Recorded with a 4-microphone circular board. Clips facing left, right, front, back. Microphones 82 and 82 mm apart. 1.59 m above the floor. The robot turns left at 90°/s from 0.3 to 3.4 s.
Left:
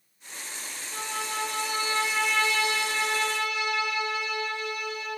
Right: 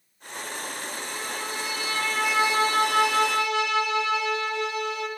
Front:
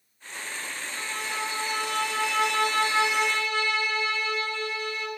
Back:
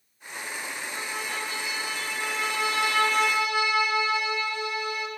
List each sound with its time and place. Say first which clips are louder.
0.9 s a violin: left 1 dB, front 1 dB; 115° left, 4 m; by 5.1 s 105° right, 4 m